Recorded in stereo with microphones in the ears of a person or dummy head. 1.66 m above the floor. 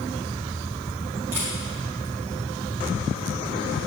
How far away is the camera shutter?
About 2.0 m.